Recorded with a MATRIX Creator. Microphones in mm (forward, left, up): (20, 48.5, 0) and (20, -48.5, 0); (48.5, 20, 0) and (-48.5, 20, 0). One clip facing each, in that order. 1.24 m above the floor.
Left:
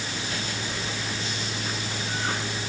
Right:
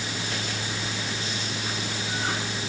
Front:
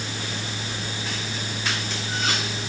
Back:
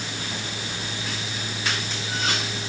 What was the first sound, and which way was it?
Only background noise.